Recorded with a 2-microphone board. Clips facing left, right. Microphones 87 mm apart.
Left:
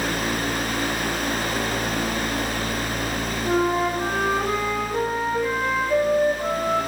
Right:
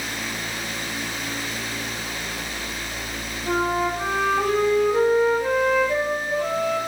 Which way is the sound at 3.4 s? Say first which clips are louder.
Left 1 dB; 60° right (ahead or behind).